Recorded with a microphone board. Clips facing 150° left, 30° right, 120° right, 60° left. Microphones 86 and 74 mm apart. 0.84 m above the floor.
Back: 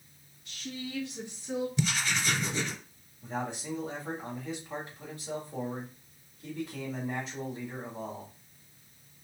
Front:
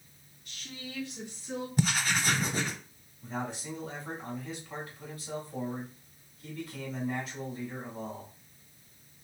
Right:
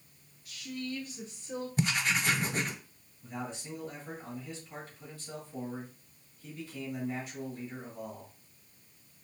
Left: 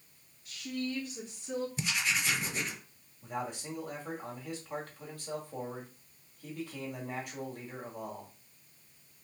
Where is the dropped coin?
No dropped coin in this recording.